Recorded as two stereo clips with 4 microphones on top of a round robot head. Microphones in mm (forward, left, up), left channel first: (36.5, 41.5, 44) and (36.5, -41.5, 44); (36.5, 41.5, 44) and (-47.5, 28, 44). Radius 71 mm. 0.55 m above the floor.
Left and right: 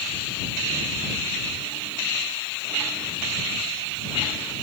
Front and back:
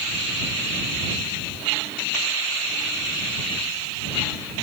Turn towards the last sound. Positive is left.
No sound to turn to.